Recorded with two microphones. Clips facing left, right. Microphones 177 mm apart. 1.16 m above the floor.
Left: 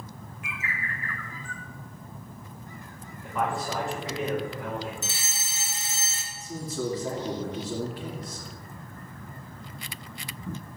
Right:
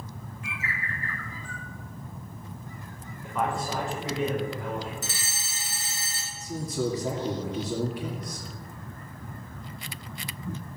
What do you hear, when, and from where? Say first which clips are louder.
0.4 s a bird: even; 35° right (ahead or behind), 2.5 m
3.2 s a man speaking: even; centre (ahead or behind), 5 m
5.0 s a fire alarm: even; 25° left (ahead or behind), 3 m
6.3 s a man speaking: right 2 dB; 10° right (ahead or behind), 3 m